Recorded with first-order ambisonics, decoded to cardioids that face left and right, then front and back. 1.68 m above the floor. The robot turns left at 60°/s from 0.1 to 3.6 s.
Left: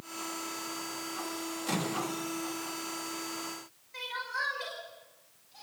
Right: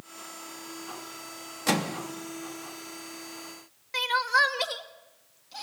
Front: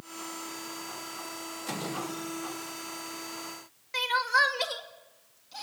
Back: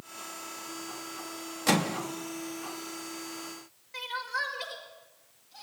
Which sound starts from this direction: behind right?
A microwave, at 1.7 s.